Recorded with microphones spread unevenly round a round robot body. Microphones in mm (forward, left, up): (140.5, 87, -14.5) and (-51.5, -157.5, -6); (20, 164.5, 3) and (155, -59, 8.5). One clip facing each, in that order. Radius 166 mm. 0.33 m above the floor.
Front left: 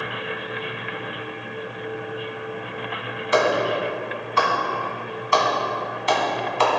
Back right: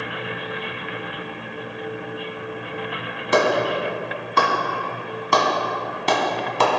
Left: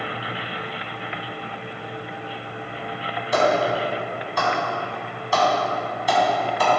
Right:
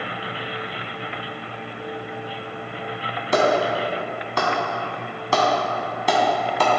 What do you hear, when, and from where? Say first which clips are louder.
3.3 s a clap: back right 1 dB, right 1 dB; 90° right, 2 m